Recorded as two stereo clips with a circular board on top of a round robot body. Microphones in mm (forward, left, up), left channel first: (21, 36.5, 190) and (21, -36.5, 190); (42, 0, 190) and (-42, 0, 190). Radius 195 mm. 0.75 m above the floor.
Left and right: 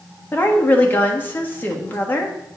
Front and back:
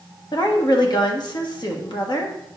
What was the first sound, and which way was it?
A woman speaking, 30° left.